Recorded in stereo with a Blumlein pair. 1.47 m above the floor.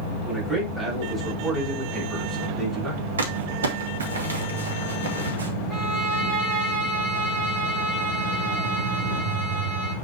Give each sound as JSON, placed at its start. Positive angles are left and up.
{"t": 0.2, "sound": "a man speaking", "azimuth_deg": 0, "distance_m": 4.5}
{"t": 3.2, "sound": "crumpling", "azimuth_deg": -65, "distance_m": 1.6}
{"t": 5.7, "sound": "a violin", "azimuth_deg": -10, "distance_m": 5.0}